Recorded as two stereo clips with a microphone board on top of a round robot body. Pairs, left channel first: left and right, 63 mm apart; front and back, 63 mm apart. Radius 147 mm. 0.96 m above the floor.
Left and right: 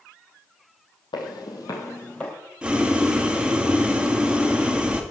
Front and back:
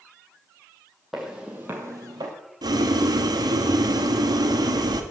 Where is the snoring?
I don't hear snoring.